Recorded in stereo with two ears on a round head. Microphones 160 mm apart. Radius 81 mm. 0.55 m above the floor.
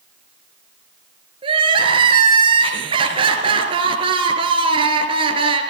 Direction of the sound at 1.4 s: 30° right (ahead or behind).